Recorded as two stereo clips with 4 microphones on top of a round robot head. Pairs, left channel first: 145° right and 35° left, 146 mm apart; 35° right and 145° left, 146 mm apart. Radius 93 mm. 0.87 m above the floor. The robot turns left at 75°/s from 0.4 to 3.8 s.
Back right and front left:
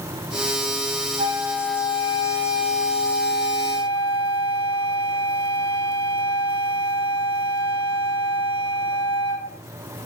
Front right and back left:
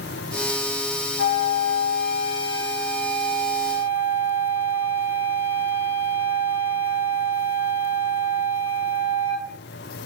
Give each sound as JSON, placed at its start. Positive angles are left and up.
{"t": 1.2, "sound": "a flute", "azimuth_deg": -10, "distance_m": 9.5}